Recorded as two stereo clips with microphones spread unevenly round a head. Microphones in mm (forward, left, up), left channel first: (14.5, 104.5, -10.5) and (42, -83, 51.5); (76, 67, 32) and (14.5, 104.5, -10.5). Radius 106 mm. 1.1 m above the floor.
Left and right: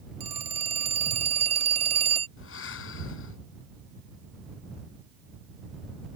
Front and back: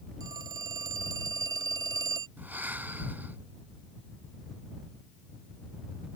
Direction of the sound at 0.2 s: 145° right.